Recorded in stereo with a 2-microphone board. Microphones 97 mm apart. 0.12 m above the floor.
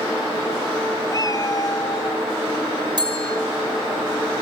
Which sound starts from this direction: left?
A cat meowing, at 1.1 s.